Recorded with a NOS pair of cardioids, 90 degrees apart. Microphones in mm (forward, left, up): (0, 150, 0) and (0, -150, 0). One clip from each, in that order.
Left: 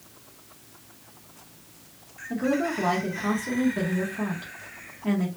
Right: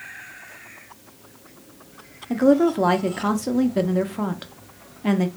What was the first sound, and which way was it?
A woman speaking, 45° right.